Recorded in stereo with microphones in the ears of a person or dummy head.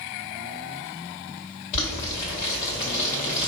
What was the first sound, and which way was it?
Boiling, 30° left (ahead or behind).